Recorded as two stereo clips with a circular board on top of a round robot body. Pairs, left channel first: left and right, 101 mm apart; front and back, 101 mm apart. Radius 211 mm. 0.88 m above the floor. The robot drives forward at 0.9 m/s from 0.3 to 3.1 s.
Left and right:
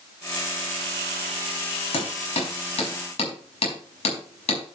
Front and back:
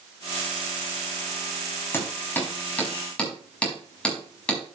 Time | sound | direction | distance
1.9 | hammering | 70° left | 5 m